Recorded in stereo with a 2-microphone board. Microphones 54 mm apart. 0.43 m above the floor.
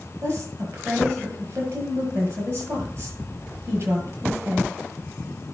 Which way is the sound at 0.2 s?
45° right (ahead or behind).